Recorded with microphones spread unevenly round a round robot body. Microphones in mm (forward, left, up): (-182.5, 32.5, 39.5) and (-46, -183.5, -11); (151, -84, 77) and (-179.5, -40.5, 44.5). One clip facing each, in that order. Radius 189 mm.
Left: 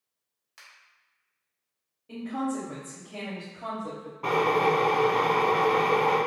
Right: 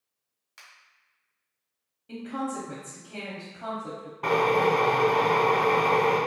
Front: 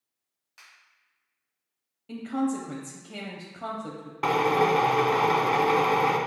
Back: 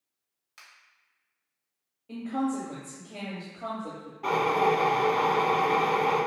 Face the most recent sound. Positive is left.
turn(degrees=15)